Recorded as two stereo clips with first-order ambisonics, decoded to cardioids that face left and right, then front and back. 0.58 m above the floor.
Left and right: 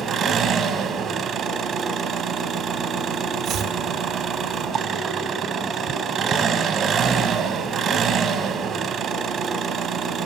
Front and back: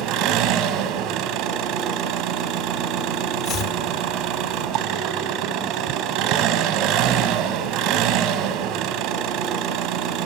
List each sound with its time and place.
0.0 s an engine running: 150° right, 1.8 m
3.5 s chopping: 45° right, 2 m